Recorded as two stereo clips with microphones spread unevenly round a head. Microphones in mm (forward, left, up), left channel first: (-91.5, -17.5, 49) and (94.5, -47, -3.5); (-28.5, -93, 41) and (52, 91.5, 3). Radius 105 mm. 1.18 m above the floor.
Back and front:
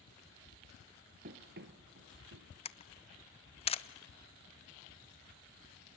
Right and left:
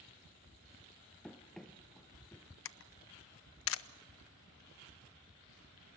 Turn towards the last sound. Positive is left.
turn(degrees=-125)